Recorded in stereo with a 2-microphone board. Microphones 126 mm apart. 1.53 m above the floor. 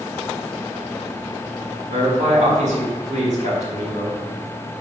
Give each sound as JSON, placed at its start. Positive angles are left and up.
{"t": 1.9, "sound": "a man speaking", "side_deg": -75, "distance_m": 4.5}